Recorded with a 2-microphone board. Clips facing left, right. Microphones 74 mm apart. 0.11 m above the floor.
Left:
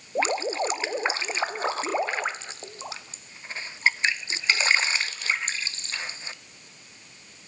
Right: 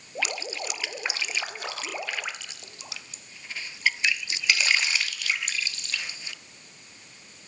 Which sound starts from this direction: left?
Dripping, at 0.1 s.